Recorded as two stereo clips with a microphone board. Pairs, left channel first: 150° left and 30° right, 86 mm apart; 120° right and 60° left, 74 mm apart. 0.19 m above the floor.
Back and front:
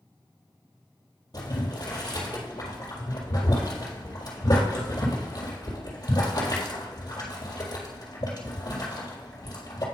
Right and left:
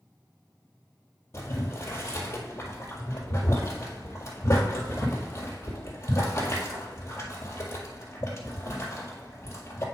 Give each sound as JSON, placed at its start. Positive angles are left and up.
{"t": 1.3, "sound": "boiling", "azimuth_deg": -170, "distance_m": 1.9}